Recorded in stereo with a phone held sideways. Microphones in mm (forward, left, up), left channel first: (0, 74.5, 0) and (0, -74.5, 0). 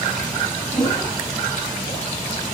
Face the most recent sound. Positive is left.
turn(degrees=20)  # may be behind; listen again after turning